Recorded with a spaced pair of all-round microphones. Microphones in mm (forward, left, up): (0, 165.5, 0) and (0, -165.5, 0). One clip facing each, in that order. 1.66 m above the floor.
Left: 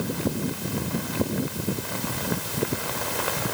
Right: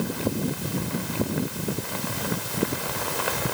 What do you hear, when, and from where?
Only background noise.